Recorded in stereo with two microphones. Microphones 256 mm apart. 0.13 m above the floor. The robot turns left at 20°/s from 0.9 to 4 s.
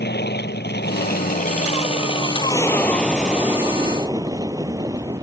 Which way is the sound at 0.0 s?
45° left.